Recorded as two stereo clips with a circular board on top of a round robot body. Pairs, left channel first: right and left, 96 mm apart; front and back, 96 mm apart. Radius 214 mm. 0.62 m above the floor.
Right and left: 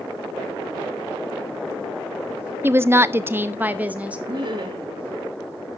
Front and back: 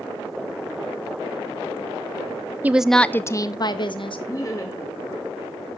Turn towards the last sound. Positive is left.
turn(degrees=50)